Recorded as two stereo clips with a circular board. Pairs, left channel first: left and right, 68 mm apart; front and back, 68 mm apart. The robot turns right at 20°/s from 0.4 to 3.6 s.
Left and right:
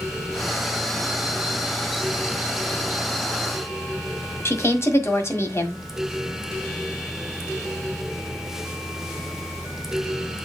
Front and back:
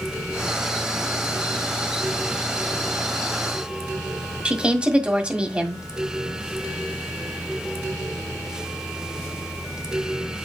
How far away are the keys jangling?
I don't hear keys jangling.